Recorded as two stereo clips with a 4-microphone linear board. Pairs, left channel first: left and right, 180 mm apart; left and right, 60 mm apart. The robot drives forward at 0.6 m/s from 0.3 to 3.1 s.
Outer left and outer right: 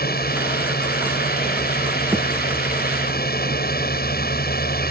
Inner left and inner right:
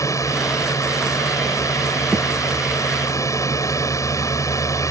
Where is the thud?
10° right (ahead or behind).